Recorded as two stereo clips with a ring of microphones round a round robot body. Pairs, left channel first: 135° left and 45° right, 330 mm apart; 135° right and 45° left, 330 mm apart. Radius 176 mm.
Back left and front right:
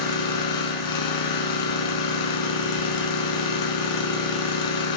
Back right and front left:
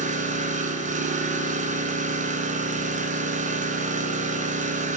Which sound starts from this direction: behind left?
An engine running, at 0.0 s.